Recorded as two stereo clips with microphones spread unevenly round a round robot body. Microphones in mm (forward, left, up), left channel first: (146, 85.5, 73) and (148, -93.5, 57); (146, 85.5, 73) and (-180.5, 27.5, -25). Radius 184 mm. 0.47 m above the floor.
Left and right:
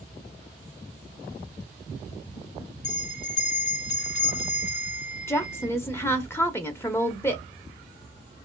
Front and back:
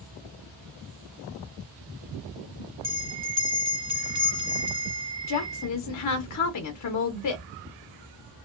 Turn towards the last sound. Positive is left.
turn(degrees=15)